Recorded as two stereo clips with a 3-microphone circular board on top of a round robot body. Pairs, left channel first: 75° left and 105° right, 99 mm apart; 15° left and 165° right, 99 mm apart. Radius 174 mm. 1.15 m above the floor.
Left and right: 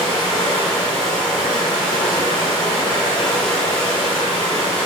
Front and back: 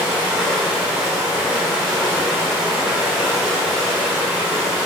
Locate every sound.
0.0 s running water: 120° left, 1.1 m